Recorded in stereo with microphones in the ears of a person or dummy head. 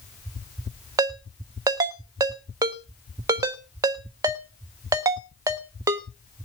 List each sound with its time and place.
1.0 s a ringtone: 20° right (ahead or behind), 0.9 m